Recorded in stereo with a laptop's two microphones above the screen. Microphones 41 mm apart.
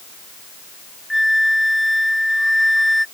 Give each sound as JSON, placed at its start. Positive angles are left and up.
{"t": 1.1, "sound": "a flute", "side_deg": 0}